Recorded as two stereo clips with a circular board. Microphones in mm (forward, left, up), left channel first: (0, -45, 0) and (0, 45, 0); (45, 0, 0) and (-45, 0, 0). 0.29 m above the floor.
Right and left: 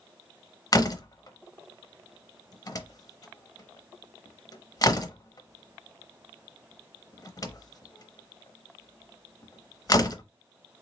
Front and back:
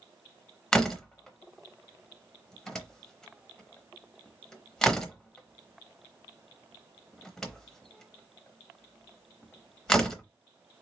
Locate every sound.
0.7 s a door slam: 80° right, 0.8 m